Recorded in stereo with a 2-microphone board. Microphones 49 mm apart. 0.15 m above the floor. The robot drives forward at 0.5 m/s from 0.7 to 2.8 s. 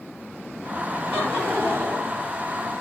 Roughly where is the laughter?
Right.